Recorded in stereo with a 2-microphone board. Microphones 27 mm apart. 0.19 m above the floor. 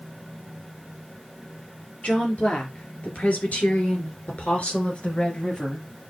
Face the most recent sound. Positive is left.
turn(degrees=40)  # may be behind; listen again after turning